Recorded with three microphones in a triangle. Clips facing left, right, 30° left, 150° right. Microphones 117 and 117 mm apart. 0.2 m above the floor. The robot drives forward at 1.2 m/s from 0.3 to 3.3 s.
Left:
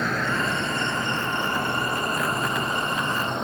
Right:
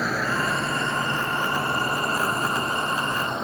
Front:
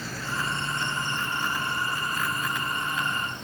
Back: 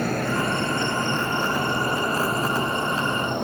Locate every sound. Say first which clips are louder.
0.0 s an insect: even, back 9 dB; 175° right; by 3.5 s straight behind